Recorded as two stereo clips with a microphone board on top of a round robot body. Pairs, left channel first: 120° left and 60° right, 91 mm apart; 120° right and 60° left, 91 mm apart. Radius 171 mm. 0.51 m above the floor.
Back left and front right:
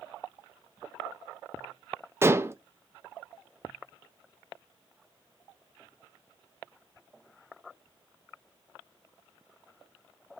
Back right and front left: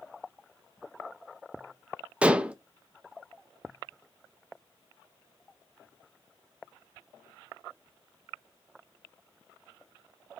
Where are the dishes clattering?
10° right, 0.5 m.